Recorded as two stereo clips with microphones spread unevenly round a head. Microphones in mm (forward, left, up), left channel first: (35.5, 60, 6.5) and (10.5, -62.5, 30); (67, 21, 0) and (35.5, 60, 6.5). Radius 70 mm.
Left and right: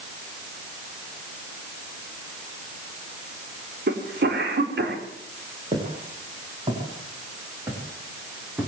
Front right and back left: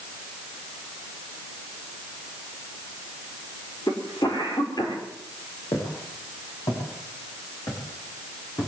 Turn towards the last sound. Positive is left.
turn(degrees=-25)